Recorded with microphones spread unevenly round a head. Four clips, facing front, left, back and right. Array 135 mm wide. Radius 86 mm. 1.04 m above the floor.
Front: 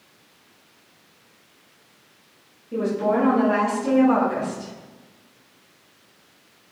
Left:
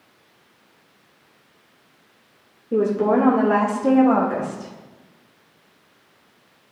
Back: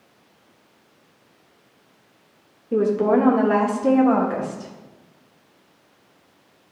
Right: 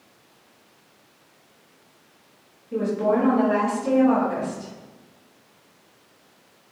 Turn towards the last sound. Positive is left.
turn(degrees=125)